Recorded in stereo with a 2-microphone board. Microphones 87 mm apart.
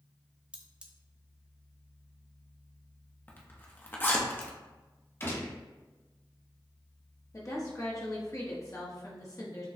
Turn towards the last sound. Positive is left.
turn(degrees=40)  # may be behind; listen again after turning